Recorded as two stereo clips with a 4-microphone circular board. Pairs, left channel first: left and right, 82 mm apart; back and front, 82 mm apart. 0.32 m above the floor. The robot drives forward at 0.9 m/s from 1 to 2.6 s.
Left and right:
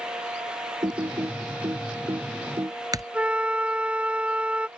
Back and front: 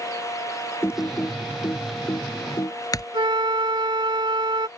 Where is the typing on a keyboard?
120° right; by 3.0 s 135° right.